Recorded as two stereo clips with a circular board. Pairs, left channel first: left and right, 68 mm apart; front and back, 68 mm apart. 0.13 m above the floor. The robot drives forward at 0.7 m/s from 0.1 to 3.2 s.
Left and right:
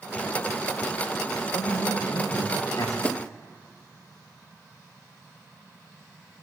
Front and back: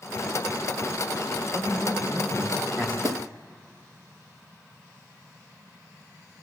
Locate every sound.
1.5 s a man speaking: 120° left, 9 m; by 2.9 s 125° left, 9.5 m
3.0 s a snare drum: 165° left, 1.0 m